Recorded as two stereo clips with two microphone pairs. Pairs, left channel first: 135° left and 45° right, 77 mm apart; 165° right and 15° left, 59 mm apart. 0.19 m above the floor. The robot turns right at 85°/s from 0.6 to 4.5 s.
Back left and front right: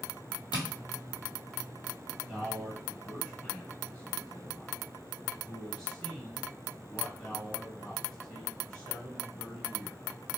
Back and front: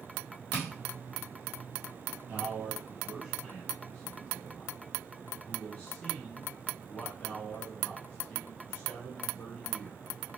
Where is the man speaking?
10° left, 1.1 m; by 10.0 s 160° right, 1.1 m.